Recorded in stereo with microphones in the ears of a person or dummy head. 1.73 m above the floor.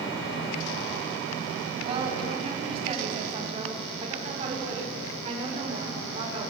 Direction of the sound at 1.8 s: 35° right (ahead or behind).